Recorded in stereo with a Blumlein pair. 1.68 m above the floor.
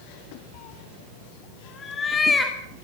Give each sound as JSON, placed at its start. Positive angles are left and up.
{"t": 0.5, "sound": "a cat meowing", "azimuth_deg": 45, "distance_m": 3.0}